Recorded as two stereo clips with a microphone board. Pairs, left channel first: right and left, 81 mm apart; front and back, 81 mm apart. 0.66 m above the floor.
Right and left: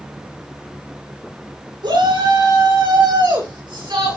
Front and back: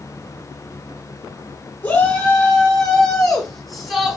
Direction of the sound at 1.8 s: 75° left.